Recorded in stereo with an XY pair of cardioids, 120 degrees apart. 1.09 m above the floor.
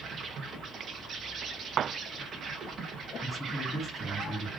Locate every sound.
0.0 s an insect: 50° right, 0.9 m
3.2 s a man speaking: 10° left, 2.5 m